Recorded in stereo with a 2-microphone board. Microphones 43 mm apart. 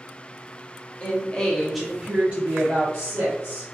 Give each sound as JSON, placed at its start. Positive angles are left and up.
{"t": 1.0, "sound": "a woman speaking", "side_deg": 35, "distance_m": 0.8}